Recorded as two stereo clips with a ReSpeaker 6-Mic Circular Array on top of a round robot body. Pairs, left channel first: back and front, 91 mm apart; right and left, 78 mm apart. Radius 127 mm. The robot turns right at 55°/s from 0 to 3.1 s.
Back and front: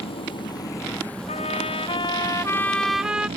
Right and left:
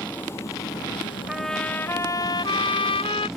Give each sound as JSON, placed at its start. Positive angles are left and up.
{"t": 0.0, "sound": "an engine running", "azimuth_deg": -165}
{"t": 1.3, "sound": "a trumpet", "azimuth_deg": 175}